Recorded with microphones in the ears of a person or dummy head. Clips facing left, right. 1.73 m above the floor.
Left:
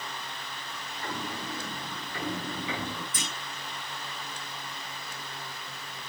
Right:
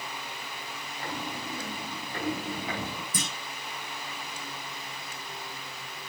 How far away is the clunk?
About 7.5 m.